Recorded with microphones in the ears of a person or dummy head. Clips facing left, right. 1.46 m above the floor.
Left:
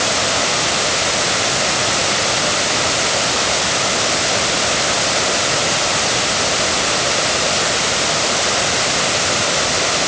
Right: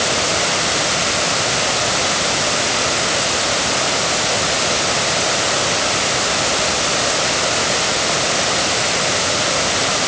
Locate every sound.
Only background noise.